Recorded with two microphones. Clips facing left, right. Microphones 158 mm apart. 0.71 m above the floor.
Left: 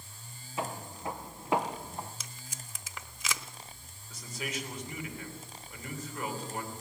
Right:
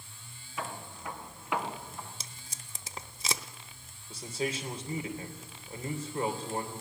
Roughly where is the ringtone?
No ringtone in this recording.